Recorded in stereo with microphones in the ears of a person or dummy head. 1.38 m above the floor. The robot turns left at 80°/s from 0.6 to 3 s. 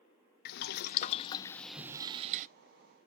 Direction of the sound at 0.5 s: 90° left.